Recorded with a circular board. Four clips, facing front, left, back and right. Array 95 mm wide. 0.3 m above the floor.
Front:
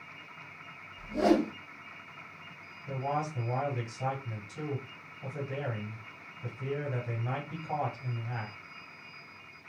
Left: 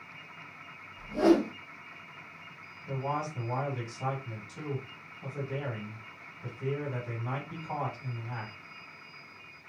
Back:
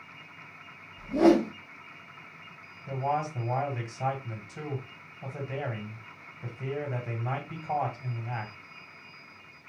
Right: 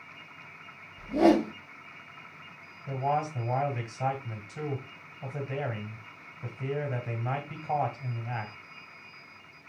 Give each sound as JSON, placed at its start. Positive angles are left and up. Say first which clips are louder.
{"t": 1.0, "sound": "a whoosh", "louder": "right 2 dB, back 5 dB", "azimuth_deg": -125, "distance_m": 1.2}
{"t": 2.9, "sound": "a man speaking", "louder": "right 5 dB, back 3 dB", "azimuth_deg": -135, "distance_m": 1.8}